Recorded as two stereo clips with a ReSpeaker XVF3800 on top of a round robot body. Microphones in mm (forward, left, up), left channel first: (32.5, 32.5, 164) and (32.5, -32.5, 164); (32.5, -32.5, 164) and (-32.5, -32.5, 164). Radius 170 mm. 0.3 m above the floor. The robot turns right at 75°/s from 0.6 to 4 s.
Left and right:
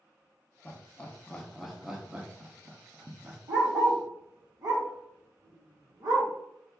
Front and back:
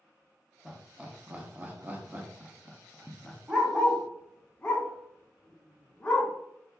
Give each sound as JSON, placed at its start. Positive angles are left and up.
{"t": 0.7, "sound": "laughter", "azimuth_deg": 105, "distance_m": 0.9}
{"t": 3.5, "sound": "a dog barking", "azimuth_deg": -110, "distance_m": 1.0}